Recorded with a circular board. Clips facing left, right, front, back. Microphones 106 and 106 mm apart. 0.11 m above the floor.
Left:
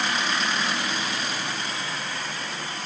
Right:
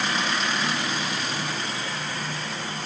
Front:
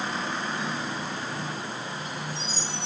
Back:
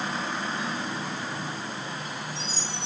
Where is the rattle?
No rattle in this recording.